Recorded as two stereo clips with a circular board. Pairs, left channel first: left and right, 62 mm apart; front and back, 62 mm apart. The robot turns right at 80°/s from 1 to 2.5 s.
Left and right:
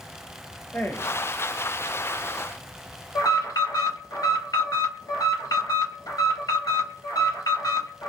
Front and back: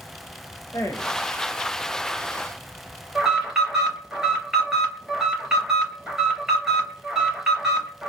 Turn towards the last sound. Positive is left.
turn(degrees=100)